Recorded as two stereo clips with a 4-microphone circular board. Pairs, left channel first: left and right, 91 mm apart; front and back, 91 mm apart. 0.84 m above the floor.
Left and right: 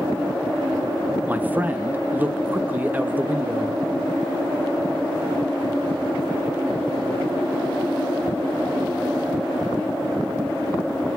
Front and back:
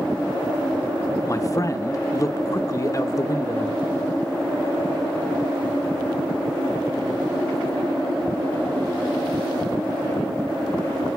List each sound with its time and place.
1.3 s a man speaking: 30° right, 1.0 m